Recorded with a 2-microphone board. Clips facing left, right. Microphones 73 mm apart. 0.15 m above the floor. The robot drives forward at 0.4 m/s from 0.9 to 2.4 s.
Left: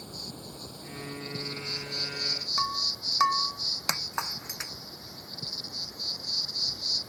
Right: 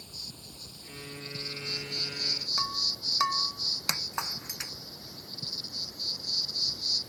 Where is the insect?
45° left (ahead or behind); by 7.1 s 35° left (ahead or behind).